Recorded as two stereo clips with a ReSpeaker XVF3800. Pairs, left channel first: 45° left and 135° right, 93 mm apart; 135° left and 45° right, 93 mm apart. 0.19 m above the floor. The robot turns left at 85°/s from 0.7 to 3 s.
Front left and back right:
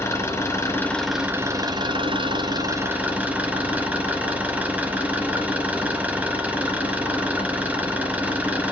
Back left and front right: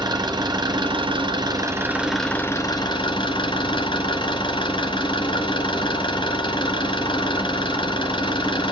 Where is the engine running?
10° right, 2.5 m; by 8.7 s 150° left, 2.5 m.